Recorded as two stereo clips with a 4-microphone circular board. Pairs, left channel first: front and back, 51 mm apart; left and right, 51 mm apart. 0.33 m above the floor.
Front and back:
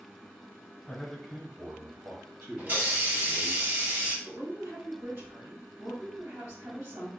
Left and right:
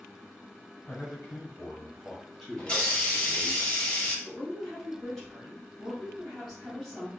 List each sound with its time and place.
0.9 s a man speaking: 65° left, 1.0 m; by 3.6 s 175° right, 2 m
2.6 s a hiss: 155° left, 1.3 m
4.2 s a woman speaking: 175° left, 1.4 m